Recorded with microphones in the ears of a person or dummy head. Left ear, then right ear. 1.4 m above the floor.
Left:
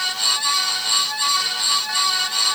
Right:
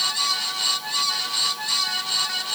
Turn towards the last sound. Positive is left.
No sound to turn to.